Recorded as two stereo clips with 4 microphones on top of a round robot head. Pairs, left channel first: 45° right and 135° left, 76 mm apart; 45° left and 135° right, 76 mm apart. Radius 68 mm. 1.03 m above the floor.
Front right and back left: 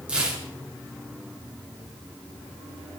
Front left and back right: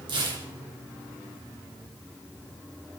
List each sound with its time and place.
0.1 s tearing paper: 150° right, 3 m